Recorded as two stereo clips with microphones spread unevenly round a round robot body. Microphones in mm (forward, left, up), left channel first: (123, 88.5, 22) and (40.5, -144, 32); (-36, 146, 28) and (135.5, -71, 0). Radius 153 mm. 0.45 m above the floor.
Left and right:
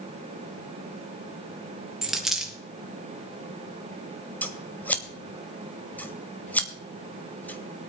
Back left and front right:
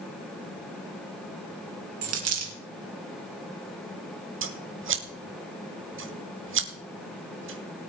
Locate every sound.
2.0 s a dropped coin: 20° right, 3 m
4.4 s scissors: 10° right, 1.8 m